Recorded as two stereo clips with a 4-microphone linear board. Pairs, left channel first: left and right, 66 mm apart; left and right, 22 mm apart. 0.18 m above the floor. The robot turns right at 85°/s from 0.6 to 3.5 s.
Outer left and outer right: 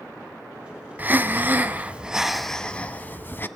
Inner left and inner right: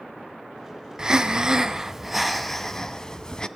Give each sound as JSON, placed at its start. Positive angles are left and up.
{"t": 1.0, "sound": "breathing", "azimuth_deg": -120, "distance_m": 0.9}